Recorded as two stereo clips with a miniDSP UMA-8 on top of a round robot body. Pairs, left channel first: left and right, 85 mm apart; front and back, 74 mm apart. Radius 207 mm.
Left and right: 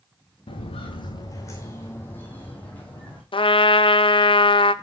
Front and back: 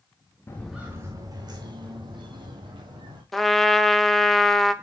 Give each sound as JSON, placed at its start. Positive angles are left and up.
{"t": 0.5, "sound": "footsteps", "azimuth_deg": 65, "distance_m": 0.5}
{"t": 3.3, "sound": "a trumpet", "azimuth_deg": 90, "distance_m": 0.9}